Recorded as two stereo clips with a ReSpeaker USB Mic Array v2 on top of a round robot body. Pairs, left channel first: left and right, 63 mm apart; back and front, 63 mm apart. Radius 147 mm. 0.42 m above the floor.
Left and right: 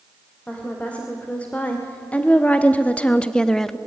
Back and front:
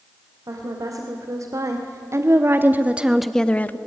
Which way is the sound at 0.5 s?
20° left.